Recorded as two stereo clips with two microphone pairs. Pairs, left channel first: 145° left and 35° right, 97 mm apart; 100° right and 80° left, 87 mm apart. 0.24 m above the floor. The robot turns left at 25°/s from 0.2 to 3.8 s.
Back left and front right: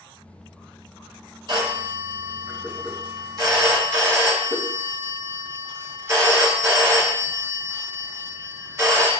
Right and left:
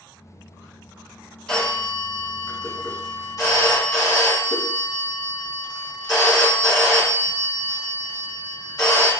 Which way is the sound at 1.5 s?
25° right.